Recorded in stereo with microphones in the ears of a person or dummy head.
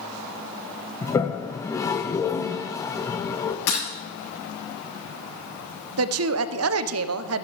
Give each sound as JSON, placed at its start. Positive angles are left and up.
{"t": 1.0, "sound": "a toilet flushing", "side_deg": 10, "distance_m": 0.6}
{"t": 3.7, "sound": "breaking glass", "side_deg": 50, "distance_m": 5.5}
{"t": 6.0, "sound": "a woman speaking", "side_deg": -65, "distance_m": 0.7}